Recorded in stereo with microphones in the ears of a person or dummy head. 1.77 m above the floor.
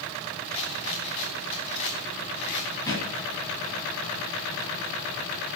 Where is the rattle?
25° left (ahead or behind), 1.1 m.